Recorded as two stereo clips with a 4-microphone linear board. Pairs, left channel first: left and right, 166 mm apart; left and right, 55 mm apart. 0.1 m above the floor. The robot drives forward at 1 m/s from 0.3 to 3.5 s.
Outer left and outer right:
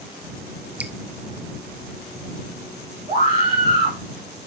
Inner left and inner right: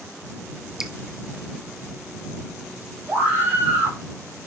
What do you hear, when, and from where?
0.8 s dripping: 10° right (ahead or behind), 0.8 m
3.1 s a scream: 25° right (ahead or behind), 7.5 m